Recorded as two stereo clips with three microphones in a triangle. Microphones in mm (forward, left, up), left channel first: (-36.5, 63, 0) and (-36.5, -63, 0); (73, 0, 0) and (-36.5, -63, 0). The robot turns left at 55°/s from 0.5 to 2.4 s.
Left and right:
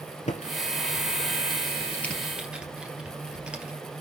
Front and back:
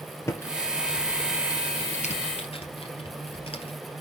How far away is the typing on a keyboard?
About 2.5 m.